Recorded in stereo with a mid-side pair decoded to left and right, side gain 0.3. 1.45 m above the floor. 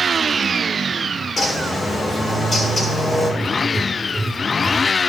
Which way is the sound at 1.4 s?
60° left.